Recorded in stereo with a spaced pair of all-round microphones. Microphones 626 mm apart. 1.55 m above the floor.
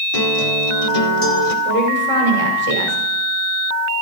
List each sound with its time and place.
0.1 s a guitar: 65° left (ahead or behind), 2.5 m
1.6 s a woman speaking: 65° right (ahead or behind), 6.5 m